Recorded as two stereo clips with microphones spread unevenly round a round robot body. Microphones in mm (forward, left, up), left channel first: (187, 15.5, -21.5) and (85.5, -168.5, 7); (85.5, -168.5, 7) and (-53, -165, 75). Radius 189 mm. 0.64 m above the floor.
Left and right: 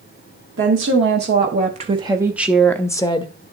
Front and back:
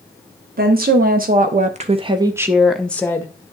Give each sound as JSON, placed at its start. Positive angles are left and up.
{"t": 0.6, "sound": "a woman speaking", "azimuth_deg": -155, "distance_m": 1.1}